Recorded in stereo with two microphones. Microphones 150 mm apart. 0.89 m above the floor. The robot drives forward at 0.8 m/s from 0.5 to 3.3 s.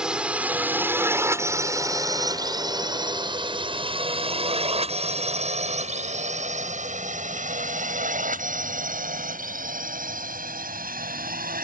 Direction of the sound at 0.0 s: 5° right (ahead or behind).